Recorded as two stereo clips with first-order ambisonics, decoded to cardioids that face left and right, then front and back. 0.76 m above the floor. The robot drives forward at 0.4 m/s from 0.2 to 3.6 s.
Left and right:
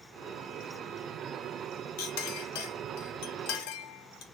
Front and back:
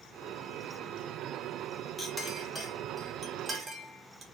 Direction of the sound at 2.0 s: 80° left.